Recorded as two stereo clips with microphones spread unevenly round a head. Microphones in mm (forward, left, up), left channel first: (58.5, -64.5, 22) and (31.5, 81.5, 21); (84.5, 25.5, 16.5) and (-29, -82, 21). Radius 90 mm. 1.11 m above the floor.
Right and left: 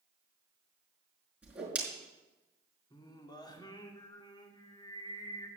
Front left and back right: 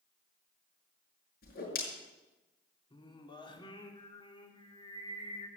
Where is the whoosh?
20° left, 5.5 m.